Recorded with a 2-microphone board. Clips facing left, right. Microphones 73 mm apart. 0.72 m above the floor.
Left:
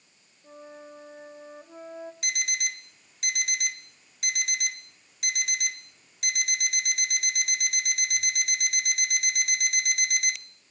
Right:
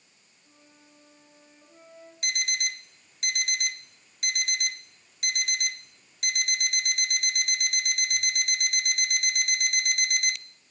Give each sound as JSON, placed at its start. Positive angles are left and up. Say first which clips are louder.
{"t": 0.4, "sound": "a flute", "louder": "left 15 dB", "side_deg": 85, "distance_m": 1.6}
{"t": 2.2, "sound": "an alarm clock", "louder": "right 2 dB", "side_deg": 5, "distance_m": 0.6}